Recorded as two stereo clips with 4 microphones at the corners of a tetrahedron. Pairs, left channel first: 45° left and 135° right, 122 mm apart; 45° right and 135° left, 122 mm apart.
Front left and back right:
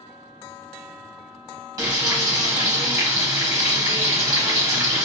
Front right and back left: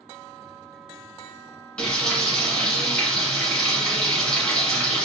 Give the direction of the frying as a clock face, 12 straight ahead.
4 o'clock.